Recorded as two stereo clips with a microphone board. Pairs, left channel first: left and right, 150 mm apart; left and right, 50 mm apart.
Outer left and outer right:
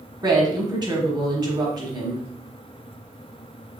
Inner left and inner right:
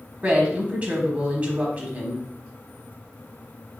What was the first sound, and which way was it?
A woman speaking, 30° right (ahead or behind).